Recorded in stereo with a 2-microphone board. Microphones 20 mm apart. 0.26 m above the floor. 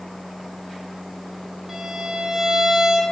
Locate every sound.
1.7 s a violin: 20° right (ahead or behind), 1.7 m